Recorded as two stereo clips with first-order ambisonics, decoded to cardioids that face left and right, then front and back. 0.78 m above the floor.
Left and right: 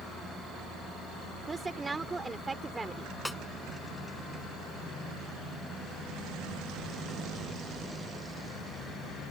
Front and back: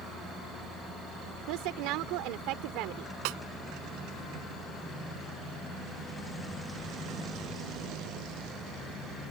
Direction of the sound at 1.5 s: 165° right.